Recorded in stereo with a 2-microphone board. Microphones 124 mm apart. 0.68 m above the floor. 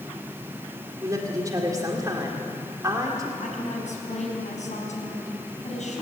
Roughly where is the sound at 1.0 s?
Right.